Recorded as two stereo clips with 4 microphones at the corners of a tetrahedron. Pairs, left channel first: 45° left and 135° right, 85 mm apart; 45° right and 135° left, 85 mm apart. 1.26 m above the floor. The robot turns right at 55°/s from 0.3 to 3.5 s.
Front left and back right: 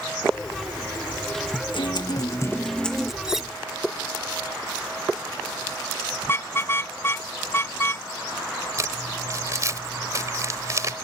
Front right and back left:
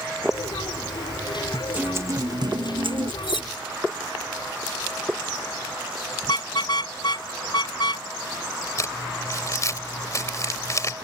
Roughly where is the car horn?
Ahead.